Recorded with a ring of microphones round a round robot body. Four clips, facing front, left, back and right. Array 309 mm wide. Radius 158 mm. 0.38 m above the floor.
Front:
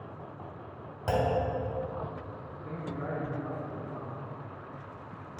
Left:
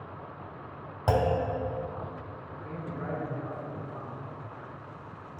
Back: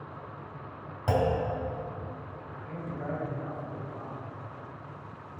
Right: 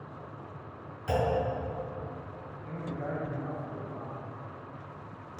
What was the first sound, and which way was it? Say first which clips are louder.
A clunk: left 2 dB, back 1 dB; 90° left.